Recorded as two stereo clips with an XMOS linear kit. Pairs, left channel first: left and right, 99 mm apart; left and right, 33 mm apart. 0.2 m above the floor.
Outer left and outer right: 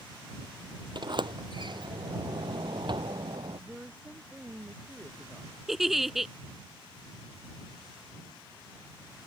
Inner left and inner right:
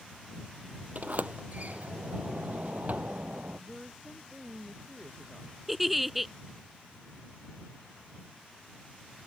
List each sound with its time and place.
0.9 s a sliding door: 55° right (ahead or behind)
3.6 s a woman speaking: 15° right (ahead or behind)
5.7 s a giggle: centre (ahead or behind)